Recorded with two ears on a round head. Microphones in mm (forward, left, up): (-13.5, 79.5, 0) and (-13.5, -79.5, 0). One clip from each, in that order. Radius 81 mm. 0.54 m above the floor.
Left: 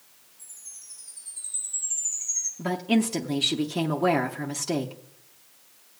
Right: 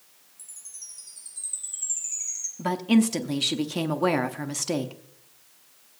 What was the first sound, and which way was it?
A chime, 60° right (ahead or behind).